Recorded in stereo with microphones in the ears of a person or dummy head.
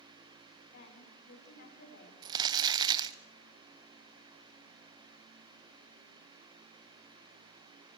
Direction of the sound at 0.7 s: 60° left (ahead or behind).